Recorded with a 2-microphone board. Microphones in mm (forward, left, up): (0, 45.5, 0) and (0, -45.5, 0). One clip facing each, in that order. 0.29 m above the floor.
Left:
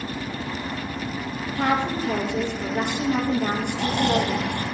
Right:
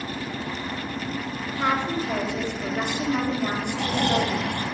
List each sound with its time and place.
1.6 s a woman speaking: 50° left (ahead or behind), 5.5 m
3.7 s snoring: 15° left (ahead or behind), 5 m